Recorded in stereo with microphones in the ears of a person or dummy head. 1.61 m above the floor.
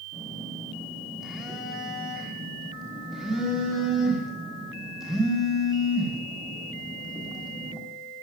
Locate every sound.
0.1 s a phone buzzing: 5° left (ahead or behind), 5 m